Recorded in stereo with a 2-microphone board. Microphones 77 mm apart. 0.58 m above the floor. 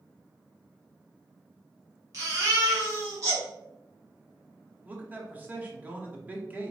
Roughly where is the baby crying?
Right.